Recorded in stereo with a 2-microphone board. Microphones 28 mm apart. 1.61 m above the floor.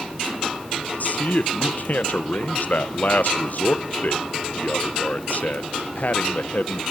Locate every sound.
1.0 s a man speaking: 60° left (ahead or behind), 0.9 m